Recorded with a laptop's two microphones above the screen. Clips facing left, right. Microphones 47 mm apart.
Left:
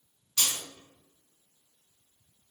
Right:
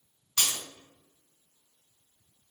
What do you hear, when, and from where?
0.4 s breaking glass: 65° right (ahead or behind), 1.7 m